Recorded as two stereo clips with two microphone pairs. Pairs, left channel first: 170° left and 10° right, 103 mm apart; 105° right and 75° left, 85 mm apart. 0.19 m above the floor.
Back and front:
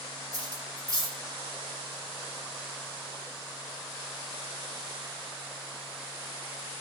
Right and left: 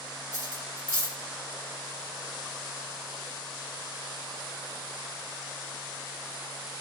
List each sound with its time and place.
0.3 s cutlery clinking: 25° left, 1.2 m